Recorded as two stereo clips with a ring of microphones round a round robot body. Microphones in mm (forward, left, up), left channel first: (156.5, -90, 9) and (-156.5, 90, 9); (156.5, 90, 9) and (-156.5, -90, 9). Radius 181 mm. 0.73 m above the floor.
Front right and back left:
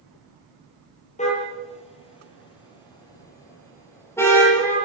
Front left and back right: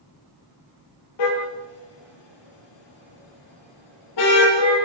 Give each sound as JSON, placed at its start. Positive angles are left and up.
{"t": 1.2, "sound": "a car horn", "azimuth_deg": 40, "distance_m": 8.0}